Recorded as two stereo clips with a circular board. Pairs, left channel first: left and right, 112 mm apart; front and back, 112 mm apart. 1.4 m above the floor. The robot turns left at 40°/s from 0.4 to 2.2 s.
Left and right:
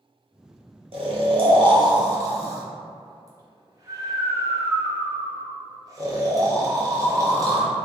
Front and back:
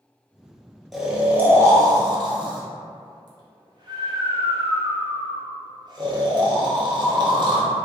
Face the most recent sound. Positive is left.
turn(degrees=-140)